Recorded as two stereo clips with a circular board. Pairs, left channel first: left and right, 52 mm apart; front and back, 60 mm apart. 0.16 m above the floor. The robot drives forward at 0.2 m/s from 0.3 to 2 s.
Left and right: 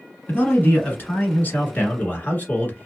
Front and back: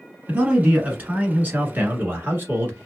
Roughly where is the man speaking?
Behind left.